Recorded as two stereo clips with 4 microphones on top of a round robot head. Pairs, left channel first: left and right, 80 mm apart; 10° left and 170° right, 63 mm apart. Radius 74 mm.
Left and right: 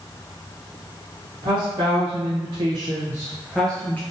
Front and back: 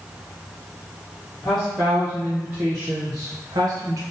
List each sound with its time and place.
1.4 s a woman speaking: 80° right, 1.3 m; by 4.0 s 160° left, 0.8 m